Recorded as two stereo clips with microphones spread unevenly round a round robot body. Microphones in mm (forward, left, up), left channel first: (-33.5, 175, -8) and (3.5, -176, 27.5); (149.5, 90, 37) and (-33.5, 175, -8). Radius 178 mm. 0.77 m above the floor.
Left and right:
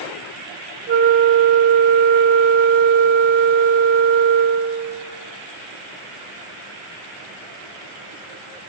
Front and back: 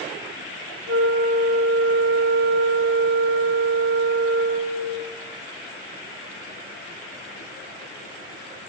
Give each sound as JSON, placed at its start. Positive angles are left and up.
{"t": 0.9, "sound": "a flute", "azimuth_deg": -150, "distance_m": 0.6}